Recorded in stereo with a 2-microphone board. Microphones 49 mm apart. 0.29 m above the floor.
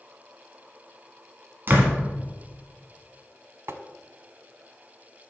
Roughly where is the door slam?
Right.